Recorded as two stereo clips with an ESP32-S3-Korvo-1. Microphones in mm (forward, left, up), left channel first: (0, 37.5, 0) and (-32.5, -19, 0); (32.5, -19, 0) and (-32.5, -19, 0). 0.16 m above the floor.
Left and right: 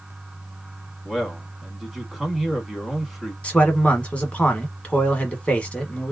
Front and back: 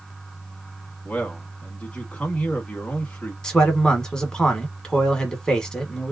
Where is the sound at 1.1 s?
35° right, 1.1 m.